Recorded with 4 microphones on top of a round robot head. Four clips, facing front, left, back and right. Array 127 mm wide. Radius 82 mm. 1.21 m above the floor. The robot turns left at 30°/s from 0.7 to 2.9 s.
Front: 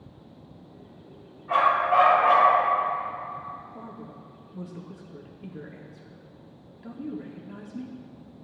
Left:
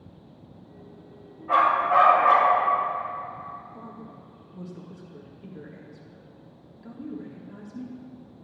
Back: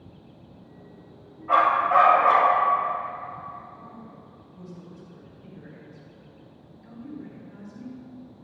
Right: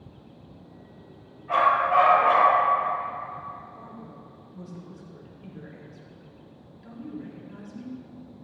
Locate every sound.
1.5 s a dog barking: 165° left, 3 m; by 2.5 s 130° left, 3 m
3.7 s a woman speaking: 25° left, 1.6 m